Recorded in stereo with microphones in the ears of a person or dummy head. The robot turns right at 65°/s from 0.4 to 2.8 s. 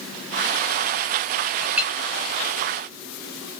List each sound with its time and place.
1.6 s a clink: centre (ahead or behind), 0.6 m; by 1.9 s 20° right (ahead or behind), 0.6 m